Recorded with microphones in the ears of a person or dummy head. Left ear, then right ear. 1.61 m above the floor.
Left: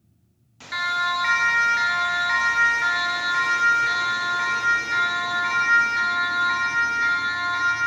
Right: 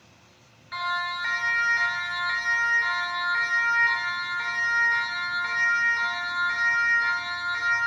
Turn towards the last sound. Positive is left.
turn(degrees=15)  # may be behind; listen again after turning